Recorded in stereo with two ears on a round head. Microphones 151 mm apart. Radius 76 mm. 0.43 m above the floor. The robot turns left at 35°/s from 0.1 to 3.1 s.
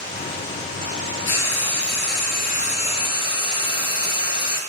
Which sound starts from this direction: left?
Frying, at 1.3 s.